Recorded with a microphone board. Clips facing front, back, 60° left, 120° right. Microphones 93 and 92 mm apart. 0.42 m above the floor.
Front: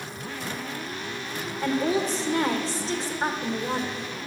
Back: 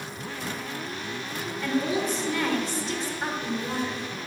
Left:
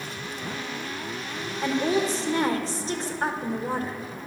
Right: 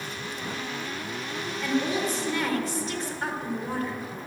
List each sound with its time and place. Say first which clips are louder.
1.6 s a woman speaking: front 2 dB, left 3 dB; 30° left, 1.1 m